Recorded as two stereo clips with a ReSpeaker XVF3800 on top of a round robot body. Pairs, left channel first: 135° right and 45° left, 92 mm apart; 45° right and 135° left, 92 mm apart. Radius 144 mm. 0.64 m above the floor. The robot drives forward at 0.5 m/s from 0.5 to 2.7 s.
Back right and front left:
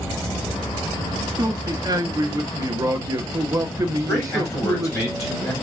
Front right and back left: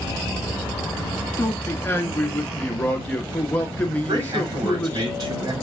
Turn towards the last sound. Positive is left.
turn(degrees=175)